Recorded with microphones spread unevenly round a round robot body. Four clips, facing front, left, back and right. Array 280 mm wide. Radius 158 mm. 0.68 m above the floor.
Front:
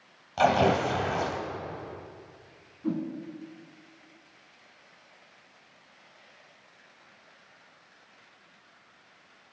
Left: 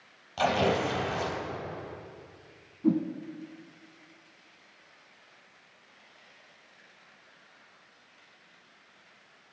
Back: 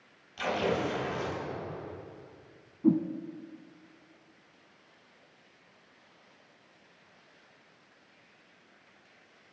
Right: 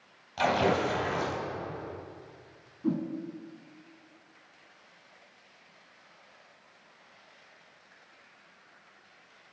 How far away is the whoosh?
About 1.0 m.